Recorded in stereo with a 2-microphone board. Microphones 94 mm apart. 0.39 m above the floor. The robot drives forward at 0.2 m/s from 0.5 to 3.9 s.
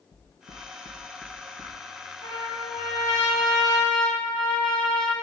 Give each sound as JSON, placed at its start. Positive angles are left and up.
{"t": 0.1, "sound": "knocking", "side_deg": 50, "distance_m": 3.0}
{"t": 2.2, "sound": "a trumpet", "side_deg": 70, "distance_m": 3.5}